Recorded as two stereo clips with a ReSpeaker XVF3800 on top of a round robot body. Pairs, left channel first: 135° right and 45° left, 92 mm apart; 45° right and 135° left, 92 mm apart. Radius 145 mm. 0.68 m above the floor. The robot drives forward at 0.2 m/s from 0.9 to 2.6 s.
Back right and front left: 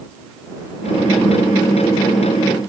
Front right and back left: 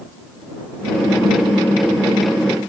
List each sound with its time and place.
Only background noise.